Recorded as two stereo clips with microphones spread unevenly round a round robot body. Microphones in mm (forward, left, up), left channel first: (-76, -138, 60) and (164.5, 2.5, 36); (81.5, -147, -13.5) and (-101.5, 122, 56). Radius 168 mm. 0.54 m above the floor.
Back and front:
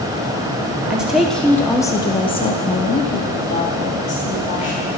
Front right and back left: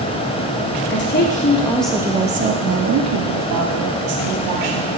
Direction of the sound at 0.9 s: 50° right.